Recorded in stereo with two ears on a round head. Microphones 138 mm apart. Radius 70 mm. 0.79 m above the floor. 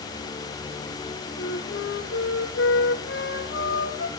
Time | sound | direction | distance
1.4 | a flute | 85° left | 5.5 m